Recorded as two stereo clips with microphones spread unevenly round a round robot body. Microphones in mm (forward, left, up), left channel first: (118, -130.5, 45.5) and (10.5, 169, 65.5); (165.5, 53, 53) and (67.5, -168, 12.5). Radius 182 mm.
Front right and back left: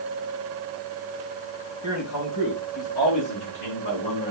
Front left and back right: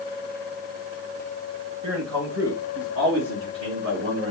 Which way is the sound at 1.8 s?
115° right.